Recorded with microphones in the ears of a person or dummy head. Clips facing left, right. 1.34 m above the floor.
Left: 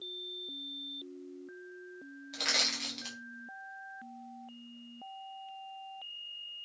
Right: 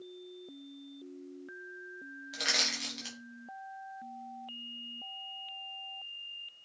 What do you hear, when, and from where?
2.3 s crushing: 10° right (ahead or behind), 0.7 m